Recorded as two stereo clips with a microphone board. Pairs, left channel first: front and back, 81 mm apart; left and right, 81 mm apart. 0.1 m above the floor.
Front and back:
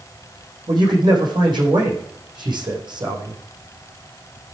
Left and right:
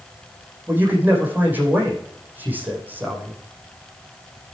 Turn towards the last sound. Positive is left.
turn(degrees=-160)